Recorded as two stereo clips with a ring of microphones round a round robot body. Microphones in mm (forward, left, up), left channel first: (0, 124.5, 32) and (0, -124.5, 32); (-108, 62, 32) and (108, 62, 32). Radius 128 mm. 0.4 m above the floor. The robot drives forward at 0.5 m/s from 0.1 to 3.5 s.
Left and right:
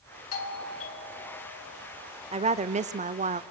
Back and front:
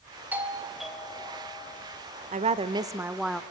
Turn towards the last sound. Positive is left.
turn(degrees=-105)